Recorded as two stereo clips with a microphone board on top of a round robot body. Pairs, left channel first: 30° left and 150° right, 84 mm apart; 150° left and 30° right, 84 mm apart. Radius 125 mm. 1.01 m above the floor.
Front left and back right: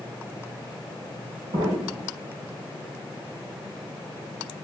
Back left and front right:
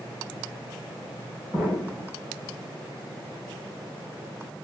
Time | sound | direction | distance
1.5 | an explosion | 110° right | 4 m